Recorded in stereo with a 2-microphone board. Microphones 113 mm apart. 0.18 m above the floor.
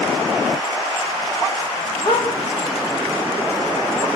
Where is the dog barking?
55° left (ahead or behind), 7.5 m; by 4.1 s 65° left (ahead or behind), 8 m.